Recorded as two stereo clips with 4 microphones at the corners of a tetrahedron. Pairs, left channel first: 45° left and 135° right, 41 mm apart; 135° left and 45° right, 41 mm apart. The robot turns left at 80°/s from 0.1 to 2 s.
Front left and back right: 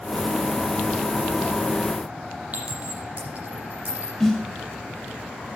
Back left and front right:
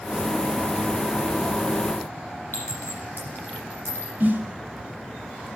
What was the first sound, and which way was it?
A clink, 175° left.